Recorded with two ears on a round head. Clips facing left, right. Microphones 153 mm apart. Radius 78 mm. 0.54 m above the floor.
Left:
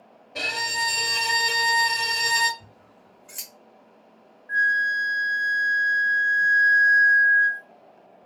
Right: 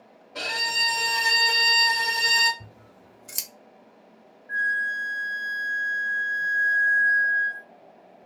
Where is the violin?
15° left (ahead or behind), 0.8 m.